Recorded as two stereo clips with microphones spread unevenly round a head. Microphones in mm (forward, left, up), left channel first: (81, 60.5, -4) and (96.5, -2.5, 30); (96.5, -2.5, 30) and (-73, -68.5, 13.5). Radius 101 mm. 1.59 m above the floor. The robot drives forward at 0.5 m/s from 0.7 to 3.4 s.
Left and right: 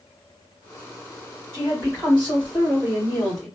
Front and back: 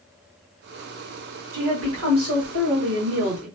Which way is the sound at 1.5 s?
150° right.